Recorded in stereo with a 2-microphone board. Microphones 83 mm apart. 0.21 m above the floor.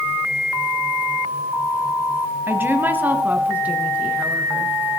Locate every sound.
2.5 s a woman speaking: 25° right (ahead or behind), 1.0 m; by 4.7 s 15° right (ahead or behind), 3 m